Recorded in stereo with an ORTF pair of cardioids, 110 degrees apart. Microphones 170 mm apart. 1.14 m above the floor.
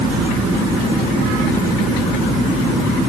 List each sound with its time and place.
Only background noise.